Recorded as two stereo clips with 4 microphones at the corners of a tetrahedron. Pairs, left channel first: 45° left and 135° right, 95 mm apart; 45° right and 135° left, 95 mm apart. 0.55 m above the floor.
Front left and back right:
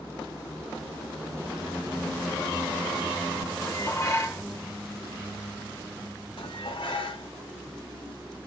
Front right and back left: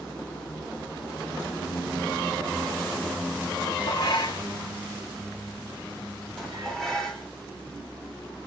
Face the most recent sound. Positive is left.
turn(degrees=40)